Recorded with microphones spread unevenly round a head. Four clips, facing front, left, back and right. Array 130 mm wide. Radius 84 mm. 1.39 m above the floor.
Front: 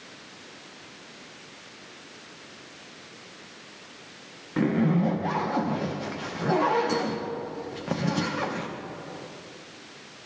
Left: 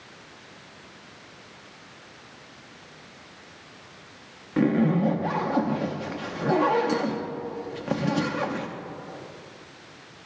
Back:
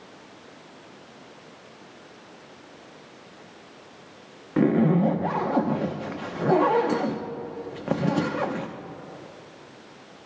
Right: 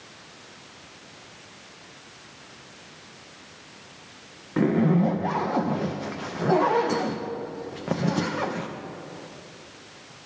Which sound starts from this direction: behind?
A zipper, at 4.6 s.